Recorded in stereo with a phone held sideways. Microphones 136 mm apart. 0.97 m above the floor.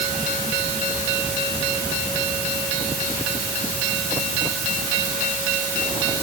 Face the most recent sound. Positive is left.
No sound to turn to.